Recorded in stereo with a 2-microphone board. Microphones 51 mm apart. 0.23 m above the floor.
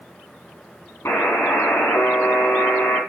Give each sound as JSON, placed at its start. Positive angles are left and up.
{"t": 1.1, "sound": "a buzzer", "side_deg": 60, "distance_m": 3.0}